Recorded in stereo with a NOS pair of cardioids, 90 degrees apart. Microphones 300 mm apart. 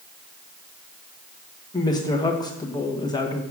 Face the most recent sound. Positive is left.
turn(degrees=15)